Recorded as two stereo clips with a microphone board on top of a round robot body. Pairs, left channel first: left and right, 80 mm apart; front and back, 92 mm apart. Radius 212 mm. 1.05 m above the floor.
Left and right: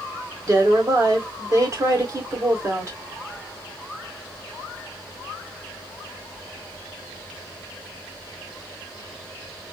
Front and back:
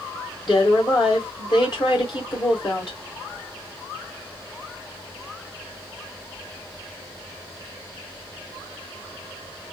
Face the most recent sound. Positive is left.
turn(degrees=-40)